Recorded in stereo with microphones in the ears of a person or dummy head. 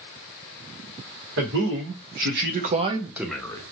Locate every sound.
1.4 s a man speaking: 75° right (ahead or behind), 1.4 m; by 3.6 s 15° left (ahead or behind), 0.8 m